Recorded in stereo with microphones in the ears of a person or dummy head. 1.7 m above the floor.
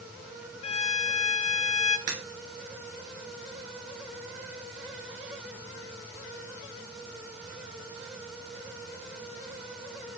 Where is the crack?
40° right (ahead or behind), 1.0 m.